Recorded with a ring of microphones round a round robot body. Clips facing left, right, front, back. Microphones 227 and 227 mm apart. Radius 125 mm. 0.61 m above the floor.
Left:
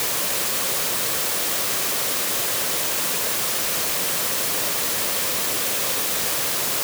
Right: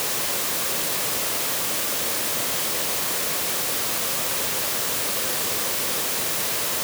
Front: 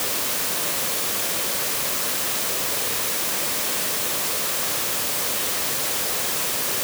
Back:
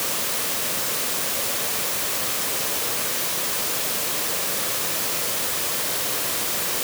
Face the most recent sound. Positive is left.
No sound to turn to.